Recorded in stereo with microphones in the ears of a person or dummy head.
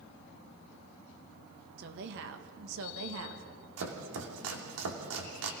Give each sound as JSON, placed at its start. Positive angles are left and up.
{"t": 1.8, "sound": "a woman speaking", "side_deg": -55, "distance_m": 1.8}
{"t": 3.8, "sound": "chopping", "side_deg": -75, "distance_m": 2.5}